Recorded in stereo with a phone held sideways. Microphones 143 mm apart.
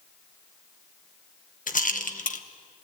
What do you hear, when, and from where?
1.7 s a rattle: 65° left (ahead or behind), 1.3 m